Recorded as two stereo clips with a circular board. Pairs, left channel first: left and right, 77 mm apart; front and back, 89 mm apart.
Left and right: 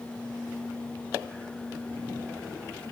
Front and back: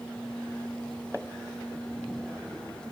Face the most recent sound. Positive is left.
No sound to turn to.